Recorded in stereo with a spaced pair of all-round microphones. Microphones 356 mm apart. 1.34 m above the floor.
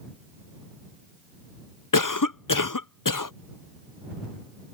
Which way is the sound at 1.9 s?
60° left (ahead or behind).